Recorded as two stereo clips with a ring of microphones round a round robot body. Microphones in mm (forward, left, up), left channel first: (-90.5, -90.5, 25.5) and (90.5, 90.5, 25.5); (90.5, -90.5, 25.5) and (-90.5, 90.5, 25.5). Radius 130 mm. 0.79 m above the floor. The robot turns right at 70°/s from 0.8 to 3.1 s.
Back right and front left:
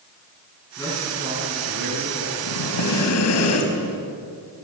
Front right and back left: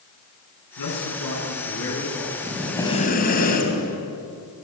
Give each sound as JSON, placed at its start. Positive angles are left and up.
{"t": 0.8, "sound": "a man speaking", "azimuth_deg": -60, "distance_m": 9.0}
{"t": 2.4, "sound": "breathing", "azimuth_deg": -150, "distance_m": 4.0}